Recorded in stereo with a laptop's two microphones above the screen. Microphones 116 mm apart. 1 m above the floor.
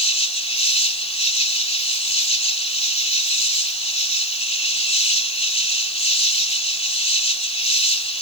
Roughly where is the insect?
Left.